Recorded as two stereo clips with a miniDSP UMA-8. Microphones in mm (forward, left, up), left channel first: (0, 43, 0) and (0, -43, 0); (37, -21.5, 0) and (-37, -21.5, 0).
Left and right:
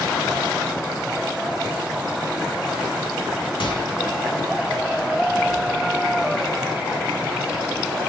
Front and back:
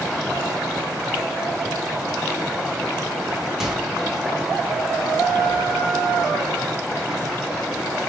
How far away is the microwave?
About 1.6 m.